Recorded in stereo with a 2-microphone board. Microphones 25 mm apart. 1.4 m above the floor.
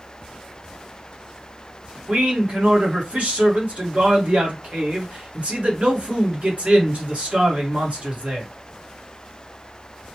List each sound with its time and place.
2.1 s a man speaking: 60° right (ahead or behind), 1.2 m